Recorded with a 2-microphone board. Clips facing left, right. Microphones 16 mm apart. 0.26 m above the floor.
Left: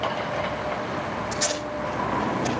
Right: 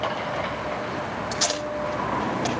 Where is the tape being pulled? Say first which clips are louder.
Right 3 dB; 75° right (ahead or behind), 7 m.